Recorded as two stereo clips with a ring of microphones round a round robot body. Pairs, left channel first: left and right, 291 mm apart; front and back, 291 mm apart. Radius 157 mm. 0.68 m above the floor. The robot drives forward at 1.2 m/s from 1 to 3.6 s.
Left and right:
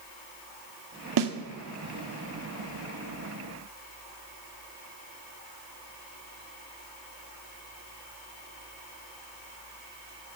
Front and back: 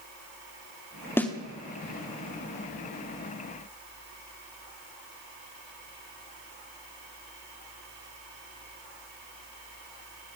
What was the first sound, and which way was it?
A snare drum, 80° right.